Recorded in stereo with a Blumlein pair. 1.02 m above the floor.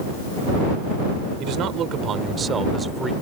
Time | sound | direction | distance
1.4 | a man speaking | 35° right | ?